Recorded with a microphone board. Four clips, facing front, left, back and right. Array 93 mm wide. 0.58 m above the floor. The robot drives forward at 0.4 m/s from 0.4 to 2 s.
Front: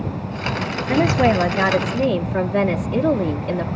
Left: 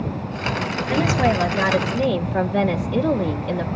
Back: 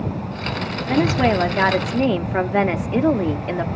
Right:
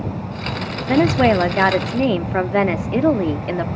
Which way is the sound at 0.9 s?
80° right.